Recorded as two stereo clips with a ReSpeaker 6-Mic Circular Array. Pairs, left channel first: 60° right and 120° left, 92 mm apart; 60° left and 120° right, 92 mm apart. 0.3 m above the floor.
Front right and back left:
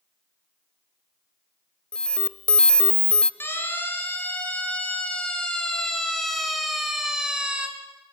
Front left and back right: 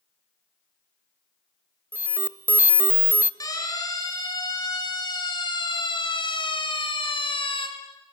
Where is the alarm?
125° right, 0.8 m.